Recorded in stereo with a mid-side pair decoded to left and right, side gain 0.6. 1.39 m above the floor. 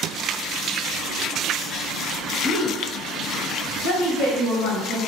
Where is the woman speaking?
70° left, 1.0 m.